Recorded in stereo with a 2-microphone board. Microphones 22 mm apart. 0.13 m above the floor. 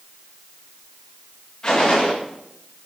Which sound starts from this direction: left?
A gunshot, at 1.6 s.